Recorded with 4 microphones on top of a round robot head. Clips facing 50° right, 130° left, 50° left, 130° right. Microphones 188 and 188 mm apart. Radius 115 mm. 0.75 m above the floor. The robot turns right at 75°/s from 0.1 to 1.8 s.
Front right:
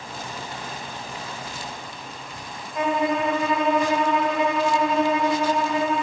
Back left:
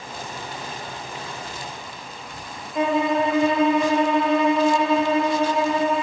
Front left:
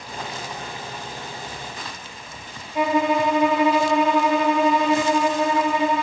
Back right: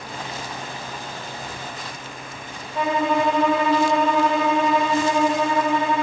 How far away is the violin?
About 0.6 m.